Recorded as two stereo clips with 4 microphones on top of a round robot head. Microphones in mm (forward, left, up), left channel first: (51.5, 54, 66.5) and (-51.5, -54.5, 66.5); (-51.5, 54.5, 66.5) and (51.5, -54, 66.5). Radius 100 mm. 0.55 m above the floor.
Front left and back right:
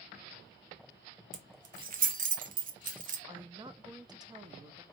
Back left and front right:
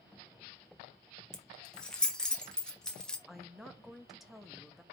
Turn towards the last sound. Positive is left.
turn(degrees=-135)